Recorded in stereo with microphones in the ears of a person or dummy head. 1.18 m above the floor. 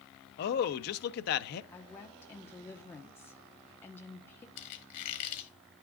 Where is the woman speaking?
15° left (ahead or behind), 1.2 m.